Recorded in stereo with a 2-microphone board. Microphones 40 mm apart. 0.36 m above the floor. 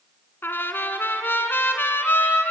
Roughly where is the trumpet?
Left.